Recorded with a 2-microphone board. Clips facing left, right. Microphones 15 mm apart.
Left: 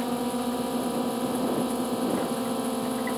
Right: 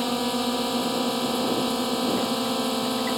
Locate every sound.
0.0 s a drone: 75° right (ahead or behind)